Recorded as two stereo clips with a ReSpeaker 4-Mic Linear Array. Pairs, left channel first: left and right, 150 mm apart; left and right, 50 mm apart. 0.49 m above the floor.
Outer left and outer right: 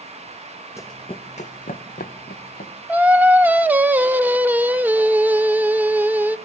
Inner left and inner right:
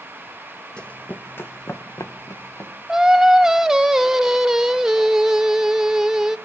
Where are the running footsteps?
20° left (ahead or behind), 1.1 m; by 2.7 s 80° left, 2.5 m.